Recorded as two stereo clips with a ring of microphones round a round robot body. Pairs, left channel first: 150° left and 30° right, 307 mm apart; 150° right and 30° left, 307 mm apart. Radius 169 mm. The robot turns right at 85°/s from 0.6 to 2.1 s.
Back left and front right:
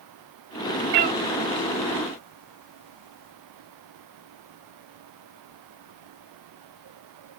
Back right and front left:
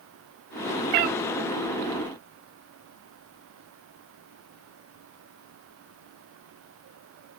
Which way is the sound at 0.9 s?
20° left.